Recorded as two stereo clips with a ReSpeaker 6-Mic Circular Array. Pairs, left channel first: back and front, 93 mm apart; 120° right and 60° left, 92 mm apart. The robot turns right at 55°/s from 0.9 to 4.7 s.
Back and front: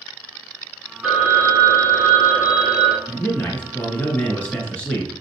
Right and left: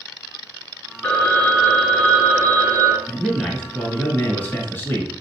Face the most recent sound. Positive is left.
turn(degrees=-125)